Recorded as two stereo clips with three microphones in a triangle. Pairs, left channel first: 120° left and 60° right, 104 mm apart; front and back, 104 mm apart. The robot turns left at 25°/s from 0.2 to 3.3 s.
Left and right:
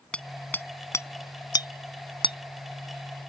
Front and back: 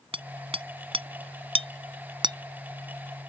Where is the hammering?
160° right; by 2.4 s 145° left.